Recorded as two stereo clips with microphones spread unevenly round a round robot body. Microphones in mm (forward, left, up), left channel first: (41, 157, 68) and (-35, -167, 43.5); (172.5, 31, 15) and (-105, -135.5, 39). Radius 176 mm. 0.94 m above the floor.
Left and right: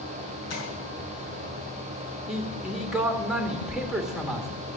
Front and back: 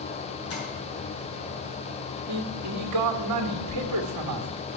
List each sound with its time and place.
0.5 s tapping: 60° left, 6 m
2.3 s a man speaking: 170° left, 1.9 m